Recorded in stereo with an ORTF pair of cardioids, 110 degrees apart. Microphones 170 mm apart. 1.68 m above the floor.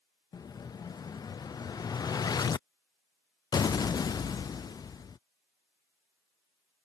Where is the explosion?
20° left.